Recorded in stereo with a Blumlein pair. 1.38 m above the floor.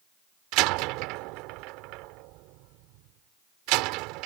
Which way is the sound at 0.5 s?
40° right.